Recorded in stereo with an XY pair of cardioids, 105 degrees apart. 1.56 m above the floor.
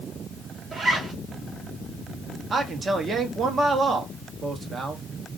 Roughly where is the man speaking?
Ahead right.